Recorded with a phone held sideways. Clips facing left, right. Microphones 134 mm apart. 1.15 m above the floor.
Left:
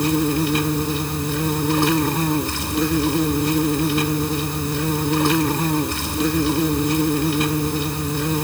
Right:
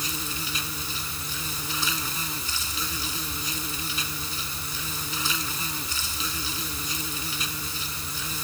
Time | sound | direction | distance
0.0 | an insect | 60° left (ahead or behind) | ?